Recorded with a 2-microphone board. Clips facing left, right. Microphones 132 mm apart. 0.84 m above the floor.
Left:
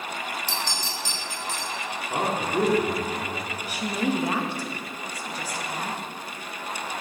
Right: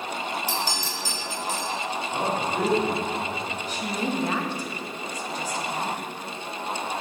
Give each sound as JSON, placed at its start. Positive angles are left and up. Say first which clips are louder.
{"t": 0.5, "sound": "a clink", "louder": "right 2 dB", "side_deg": -10, "distance_m": 2.0}
{"t": 2.1, "sound": "a man speaking", "louder": "left 2 dB", "side_deg": 50, "distance_m": 1.8}
{"t": 3.7, "sound": "a woman speaking", "louder": "left 3 dB", "side_deg": 10, "distance_m": 0.9}